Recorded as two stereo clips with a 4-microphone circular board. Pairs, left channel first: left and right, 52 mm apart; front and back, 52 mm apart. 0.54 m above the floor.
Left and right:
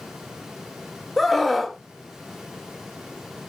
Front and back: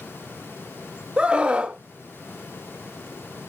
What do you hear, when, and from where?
1.2 s a scream: straight behind, 0.7 m